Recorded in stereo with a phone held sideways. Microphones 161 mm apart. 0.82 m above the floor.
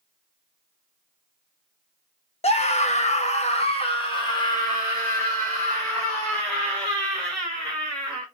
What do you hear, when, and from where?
2.4 s a scream: 40° left (ahead or behind), 1.1 m; by 8.2 s 10° left (ahead or behind), 4 m